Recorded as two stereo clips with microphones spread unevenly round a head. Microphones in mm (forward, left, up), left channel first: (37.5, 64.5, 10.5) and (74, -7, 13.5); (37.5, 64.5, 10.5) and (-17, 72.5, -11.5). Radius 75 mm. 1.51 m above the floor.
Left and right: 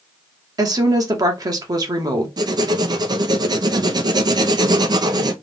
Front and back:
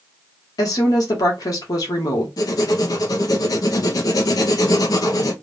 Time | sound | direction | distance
0.6 | a woman speaking | 25° right | 1.5 m
2.4 | writing | 30° right | 0.8 m